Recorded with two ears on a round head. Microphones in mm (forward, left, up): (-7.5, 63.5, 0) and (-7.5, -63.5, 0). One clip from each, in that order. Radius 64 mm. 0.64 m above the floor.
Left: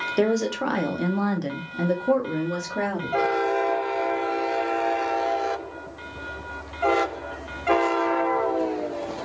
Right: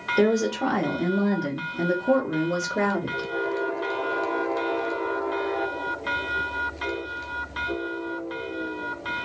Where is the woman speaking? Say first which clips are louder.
Right 1 dB; 25° left (ahead or behind), 1.0 m; by 3.3 s 10° right (ahead or behind), 1.2 m.